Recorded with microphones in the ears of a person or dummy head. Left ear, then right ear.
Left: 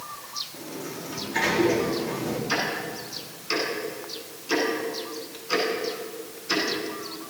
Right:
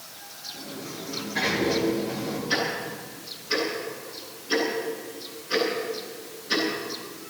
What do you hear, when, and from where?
0.5 s a sliding door: 60° left (ahead or behind), 4 m
2.5 s ticking: 70° left (ahead or behind), 9.5 m